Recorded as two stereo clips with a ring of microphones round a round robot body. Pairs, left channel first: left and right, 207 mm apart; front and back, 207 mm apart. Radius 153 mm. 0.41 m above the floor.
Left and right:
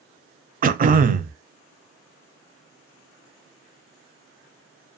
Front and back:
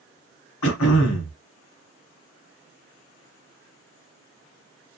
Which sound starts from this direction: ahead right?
Throat clearing, at 0.6 s.